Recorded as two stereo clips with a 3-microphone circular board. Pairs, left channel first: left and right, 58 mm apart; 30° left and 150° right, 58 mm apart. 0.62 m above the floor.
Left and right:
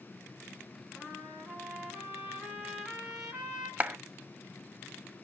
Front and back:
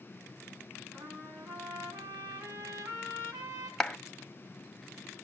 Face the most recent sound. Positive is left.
turn(degrees=-45)